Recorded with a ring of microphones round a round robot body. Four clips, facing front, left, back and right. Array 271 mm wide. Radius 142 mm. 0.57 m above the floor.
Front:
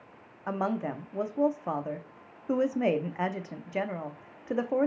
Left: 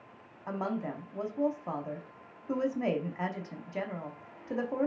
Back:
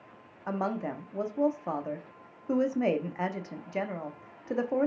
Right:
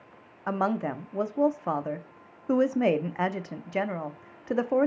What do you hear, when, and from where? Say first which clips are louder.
0.5 s a woman speaking: right 7 dB, front 1 dB; 85° right, 0.8 m